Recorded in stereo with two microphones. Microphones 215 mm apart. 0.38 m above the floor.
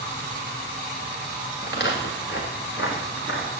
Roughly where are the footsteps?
Left.